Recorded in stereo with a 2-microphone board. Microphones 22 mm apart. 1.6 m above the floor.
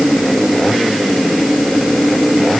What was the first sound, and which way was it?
Only background noise.